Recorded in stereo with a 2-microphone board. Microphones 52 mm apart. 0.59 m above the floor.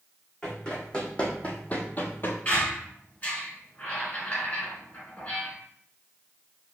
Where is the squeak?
30° left (ahead or behind), 1.6 m.